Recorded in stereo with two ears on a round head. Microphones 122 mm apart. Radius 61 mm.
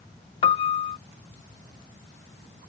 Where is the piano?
40° left (ahead or behind).